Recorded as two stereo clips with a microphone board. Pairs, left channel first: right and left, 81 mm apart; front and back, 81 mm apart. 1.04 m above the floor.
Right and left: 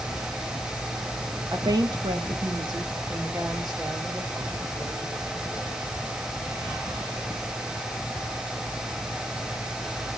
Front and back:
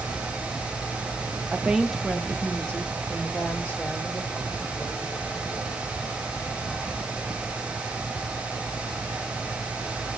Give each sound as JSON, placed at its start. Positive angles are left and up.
{"t": 1.5, "sound": "a woman speaking", "azimuth_deg": 115, "distance_m": 1.0}